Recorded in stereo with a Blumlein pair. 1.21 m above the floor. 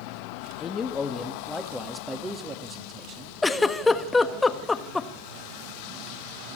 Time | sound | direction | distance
0.6 | a man speaking | 25° left | 2 m
3.4 | a giggle | 10° left | 1.2 m